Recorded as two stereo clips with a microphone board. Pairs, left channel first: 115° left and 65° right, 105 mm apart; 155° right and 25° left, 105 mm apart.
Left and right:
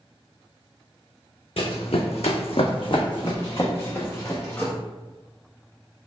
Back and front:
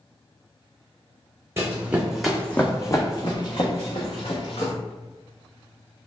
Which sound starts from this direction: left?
Running footsteps, at 1.6 s.